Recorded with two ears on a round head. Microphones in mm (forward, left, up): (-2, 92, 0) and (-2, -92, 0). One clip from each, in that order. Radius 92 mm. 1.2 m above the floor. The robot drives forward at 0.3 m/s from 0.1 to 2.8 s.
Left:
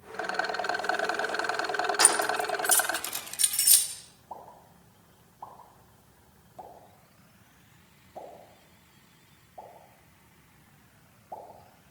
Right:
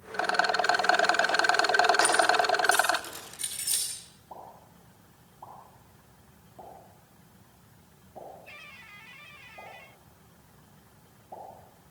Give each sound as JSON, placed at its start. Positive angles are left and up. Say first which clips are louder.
{"t": 0.1, "sound": "a rattle", "louder": "right 5 dB", "side_deg": -20, "distance_m": 0.7}
{"t": 2.0, "sound": "keys jangling", "louder": "right 3 dB", "side_deg": 40, "distance_m": 3.0}
{"t": 4.3, "sound": "a pop", "louder": "left 1 dB", "side_deg": 50, "distance_m": 7.5}